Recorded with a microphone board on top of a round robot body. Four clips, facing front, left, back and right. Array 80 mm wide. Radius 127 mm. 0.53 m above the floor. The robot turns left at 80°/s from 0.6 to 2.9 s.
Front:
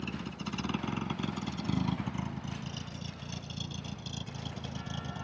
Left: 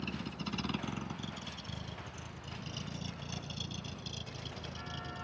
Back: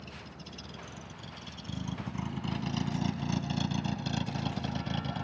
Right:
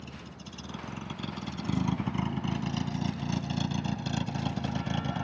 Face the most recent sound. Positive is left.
turn(degrees=-110)